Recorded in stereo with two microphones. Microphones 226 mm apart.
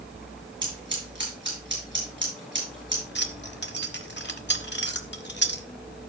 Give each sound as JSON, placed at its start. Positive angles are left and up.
{"t": 0.6, "sound": "scissors", "side_deg": -55, "distance_m": 7.5}
{"t": 3.1, "sound": "keys jangling", "side_deg": 50, "distance_m": 1.1}